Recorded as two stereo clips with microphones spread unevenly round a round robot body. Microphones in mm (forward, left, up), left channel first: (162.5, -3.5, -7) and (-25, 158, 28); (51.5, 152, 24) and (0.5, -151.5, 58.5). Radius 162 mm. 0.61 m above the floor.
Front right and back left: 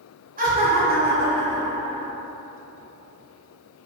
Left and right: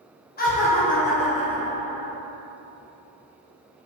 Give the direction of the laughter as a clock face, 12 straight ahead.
9 o'clock.